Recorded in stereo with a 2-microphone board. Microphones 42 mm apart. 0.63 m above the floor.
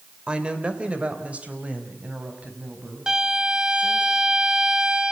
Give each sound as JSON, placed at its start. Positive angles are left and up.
{"t": 0.3, "sound": "a woman speaking", "side_deg": -25, "distance_m": 2.5}
{"t": 3.1, "sound": "a violin", "side_deg": -15, "distance_m": 1.1}